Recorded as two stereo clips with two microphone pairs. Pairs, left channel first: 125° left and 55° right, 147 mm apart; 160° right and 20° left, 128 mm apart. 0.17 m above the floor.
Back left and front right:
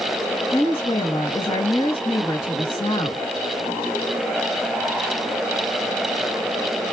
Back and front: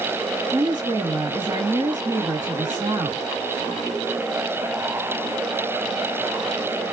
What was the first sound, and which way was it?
A woman speaking, 80° left.